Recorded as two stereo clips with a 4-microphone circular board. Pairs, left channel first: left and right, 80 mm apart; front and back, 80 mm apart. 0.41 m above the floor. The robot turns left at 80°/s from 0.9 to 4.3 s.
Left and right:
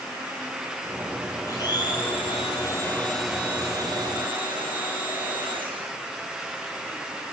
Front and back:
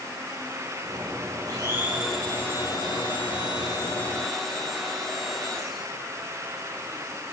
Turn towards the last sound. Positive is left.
turn(degrees=-85)